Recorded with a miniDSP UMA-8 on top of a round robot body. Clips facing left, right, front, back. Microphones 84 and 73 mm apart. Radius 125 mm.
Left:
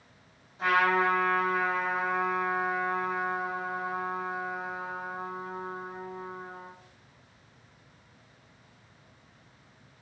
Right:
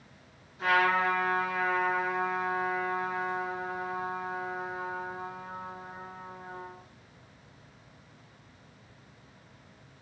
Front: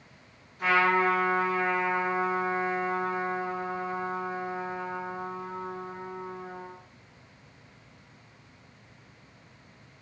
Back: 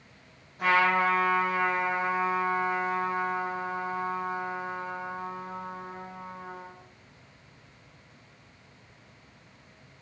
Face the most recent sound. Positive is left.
turn(degrees=140)